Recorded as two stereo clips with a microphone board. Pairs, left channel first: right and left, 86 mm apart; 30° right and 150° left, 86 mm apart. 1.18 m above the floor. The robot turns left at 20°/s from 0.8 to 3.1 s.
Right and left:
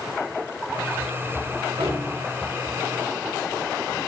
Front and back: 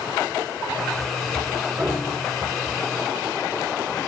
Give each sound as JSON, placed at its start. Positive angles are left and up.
{"t": 1.8, "sound": "a piano", "azimuth_deg": 95, "distance_m": 4.5}